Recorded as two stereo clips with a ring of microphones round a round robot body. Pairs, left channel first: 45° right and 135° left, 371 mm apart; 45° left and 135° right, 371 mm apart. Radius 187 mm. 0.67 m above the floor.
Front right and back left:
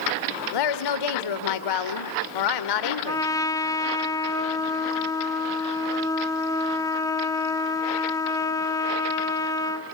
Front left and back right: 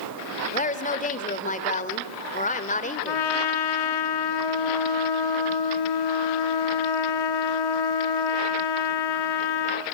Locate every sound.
0.5 s a woman speaking: 25° right, 2 m
3.1 s a trumpet: 35° left, 2.0 m